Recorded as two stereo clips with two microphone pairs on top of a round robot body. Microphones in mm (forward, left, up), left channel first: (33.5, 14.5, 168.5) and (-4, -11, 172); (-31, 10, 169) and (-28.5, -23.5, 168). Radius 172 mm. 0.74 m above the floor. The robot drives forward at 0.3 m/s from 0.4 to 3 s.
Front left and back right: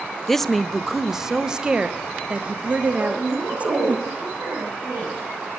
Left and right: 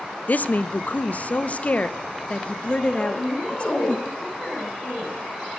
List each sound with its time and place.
0.3 s a woman speaking: 110° left, 0.7 m; by 4.0 s 155° left, 1.2 m
3.0 s a woman speaking: 160° right, 6 m